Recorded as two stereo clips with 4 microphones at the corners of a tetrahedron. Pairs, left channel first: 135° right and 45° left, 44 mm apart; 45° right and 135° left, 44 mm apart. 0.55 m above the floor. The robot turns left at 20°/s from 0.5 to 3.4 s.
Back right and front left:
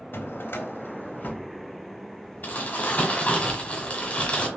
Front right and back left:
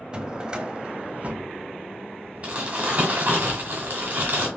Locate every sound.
0.1 s a drawer: 155° right, 0.6 m; by 3.3 s 150° left, 0.6 m
2.4 s crumpling: 170° right, 1.6 m; by 4.5 s 170° left, 1.6 m